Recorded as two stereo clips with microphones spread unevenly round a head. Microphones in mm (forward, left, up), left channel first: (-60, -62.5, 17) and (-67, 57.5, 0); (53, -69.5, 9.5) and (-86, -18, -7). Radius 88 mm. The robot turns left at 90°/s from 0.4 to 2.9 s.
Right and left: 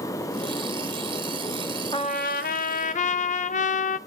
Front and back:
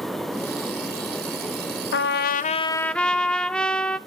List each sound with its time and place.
1.9 s a trumpet: 15° right, 0.5 m; by 4.0 s 105° right, 0.5 m